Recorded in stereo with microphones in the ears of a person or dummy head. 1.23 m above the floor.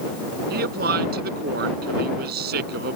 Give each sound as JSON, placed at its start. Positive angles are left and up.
{"t": 0.5, "sound": "a man speaking", "side_deg": -55}